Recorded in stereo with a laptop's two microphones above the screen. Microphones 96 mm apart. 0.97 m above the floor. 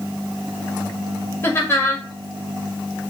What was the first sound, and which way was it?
Laughter, 25° left (ahead or behind).